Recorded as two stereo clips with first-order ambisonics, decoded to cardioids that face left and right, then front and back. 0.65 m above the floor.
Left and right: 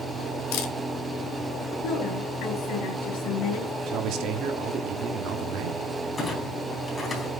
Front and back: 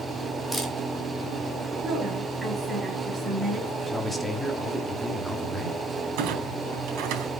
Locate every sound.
0.5 s a camera shutter: 85° left, 2 m
1.8 s a woman speaking: 100° left, 4 m
3.9 s a man speaking: 90° right, 1.3 m
6.2 s a clunk: 165° left, 3.5 m